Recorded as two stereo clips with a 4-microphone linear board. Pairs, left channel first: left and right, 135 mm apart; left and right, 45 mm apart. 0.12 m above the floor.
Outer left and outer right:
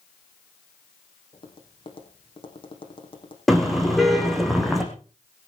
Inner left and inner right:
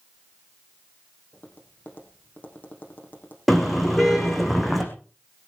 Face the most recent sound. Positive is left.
turn(degrees=0)  # may be behind; listen again after turning